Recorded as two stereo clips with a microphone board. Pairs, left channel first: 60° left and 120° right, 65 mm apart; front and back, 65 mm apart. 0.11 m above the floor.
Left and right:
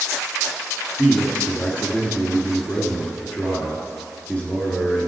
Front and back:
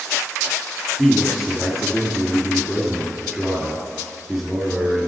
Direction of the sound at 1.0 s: 100° left.